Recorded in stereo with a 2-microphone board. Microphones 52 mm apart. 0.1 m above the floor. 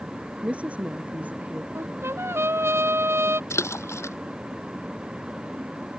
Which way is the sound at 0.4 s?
25° right (ahead or behind).